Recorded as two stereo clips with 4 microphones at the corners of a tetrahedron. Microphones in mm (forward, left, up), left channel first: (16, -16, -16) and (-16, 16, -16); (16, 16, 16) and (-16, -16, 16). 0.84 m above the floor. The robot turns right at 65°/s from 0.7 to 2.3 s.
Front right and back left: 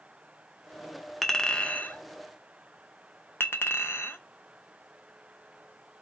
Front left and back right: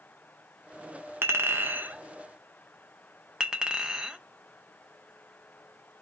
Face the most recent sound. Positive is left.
turn(degrees=-60)